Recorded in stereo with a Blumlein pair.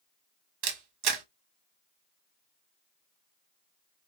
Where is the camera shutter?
40° right, 1.1 m.